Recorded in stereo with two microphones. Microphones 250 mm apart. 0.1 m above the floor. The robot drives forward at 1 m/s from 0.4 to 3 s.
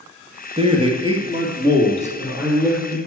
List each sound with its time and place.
0.6 s a man speaking: 25° right (ahead or behind), 2 m; by 3.0 s 10° right (ahead or behind), 4 m